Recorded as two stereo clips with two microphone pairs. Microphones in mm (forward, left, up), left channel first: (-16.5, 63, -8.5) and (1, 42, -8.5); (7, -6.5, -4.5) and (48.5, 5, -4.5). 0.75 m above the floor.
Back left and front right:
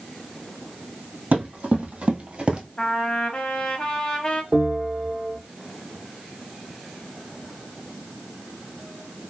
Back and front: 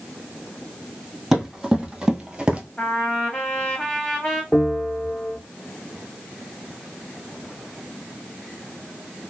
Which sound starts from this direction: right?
A bell, at 4.5 s.